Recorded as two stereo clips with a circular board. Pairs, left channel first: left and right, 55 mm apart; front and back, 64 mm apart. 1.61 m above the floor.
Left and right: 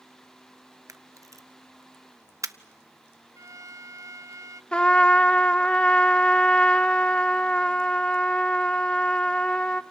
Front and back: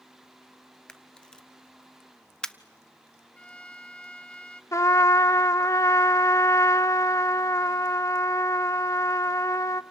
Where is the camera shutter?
80° right, 0.9 m.